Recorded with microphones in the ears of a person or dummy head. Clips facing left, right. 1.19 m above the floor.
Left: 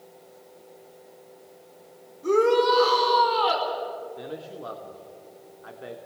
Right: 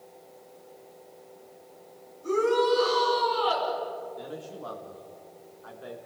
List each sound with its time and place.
2.2 s a shout: 70° left (ahead or behind), 5 m
4.2 s a man speaking: 35° left (ahead or behind), 2.5 m